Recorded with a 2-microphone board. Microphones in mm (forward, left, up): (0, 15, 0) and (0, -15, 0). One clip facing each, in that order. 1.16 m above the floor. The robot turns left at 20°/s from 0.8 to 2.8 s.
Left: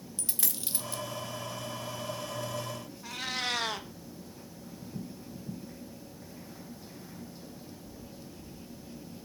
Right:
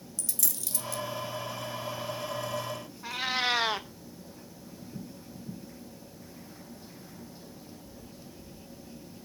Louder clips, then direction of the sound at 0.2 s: Right 1 dB; 35° left (ahead or behind).